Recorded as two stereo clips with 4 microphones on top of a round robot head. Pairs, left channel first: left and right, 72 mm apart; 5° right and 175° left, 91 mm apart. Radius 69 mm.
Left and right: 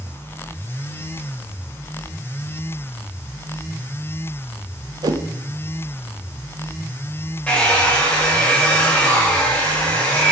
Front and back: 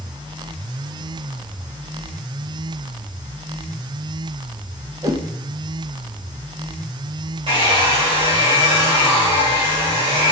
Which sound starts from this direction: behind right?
A whoosh, at 5.0 s.